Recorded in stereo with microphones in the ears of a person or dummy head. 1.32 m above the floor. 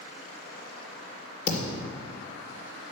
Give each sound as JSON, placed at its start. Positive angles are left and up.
{"t": 1.5, "sound": "a thud", "side_deg": 45, "distance_m": 2.5}